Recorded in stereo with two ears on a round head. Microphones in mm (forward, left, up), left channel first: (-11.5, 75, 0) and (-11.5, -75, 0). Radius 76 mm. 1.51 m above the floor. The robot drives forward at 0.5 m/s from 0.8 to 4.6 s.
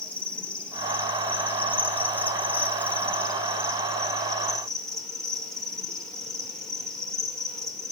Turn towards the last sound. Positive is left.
turn(degrees=5)  # may be behind; listen again after turning